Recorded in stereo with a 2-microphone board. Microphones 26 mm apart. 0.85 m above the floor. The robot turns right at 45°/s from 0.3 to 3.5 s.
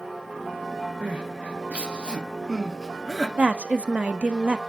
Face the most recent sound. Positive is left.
turn(degrees=-65)  # may be behind; listen again after turning